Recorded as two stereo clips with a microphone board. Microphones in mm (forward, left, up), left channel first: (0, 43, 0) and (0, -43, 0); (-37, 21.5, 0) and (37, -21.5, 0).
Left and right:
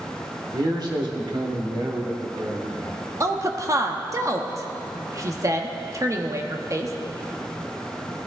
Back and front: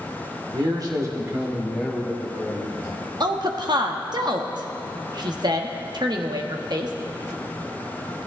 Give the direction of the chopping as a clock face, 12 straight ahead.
No chopping in this recording.